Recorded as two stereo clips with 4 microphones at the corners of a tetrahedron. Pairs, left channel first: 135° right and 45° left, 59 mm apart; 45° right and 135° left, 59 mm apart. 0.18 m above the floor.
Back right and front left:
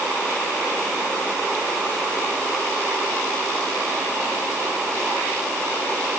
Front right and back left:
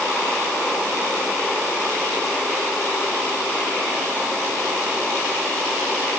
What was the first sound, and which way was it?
Only background noise.